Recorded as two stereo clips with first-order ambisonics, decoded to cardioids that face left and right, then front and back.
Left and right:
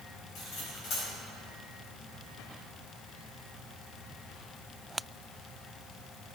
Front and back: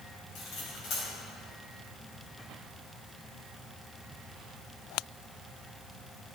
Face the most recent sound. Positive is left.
turn(degrees=45)